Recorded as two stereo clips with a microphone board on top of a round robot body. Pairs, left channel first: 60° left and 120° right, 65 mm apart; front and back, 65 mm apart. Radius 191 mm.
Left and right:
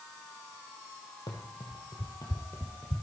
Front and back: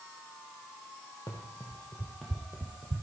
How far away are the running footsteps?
About 1.2 m.